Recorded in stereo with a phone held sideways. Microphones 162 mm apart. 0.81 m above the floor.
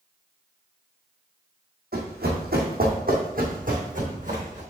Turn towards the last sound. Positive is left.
turn(degrees=-45)  # may be behind; listen again after turning